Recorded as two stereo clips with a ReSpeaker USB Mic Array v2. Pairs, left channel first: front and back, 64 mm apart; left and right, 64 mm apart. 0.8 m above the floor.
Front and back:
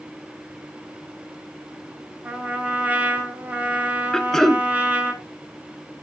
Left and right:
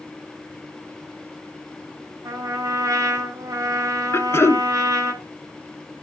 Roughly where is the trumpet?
Behind right.